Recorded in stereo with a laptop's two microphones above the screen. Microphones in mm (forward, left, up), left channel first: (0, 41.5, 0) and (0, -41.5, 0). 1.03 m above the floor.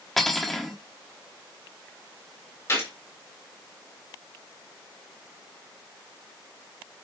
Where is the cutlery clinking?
5° left (ahead or behind), 1.0 m.